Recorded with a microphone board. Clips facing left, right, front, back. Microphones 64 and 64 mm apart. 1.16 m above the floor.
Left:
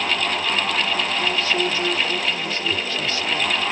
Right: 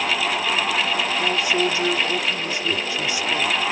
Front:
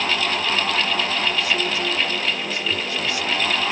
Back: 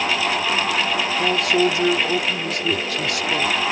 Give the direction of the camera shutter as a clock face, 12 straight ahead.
I don't hear a camera shutter.